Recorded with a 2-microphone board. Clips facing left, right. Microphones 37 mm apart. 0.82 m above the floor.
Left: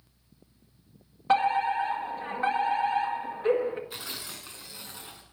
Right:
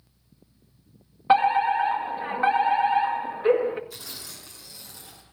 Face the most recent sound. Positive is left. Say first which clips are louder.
# left 2 dB
turn(degrees=35)  # may be behind; listen again after turning